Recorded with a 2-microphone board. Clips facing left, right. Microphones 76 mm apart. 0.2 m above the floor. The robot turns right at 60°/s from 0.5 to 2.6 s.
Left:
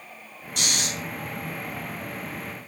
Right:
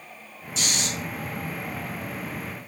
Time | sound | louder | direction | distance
0.6 | snoring | even | 60° left (ahead or behind) | 1.0 m